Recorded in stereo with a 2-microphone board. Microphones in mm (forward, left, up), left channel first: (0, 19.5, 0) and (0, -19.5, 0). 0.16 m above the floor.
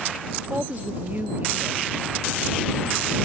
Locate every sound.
0.4 s a woman speaking: 45° right (ahead or behind)